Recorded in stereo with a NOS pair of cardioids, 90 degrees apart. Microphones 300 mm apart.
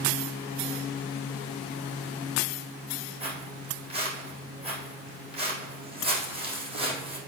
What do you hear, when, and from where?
3.2 s footsteps: 20° right, 3.5 m